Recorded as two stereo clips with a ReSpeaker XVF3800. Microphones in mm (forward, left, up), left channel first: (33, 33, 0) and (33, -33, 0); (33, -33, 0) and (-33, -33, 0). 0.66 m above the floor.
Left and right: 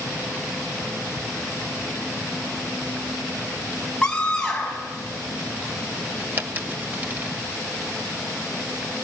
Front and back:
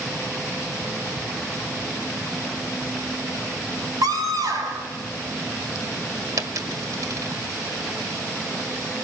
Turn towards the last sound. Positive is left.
turn(degrees=-150)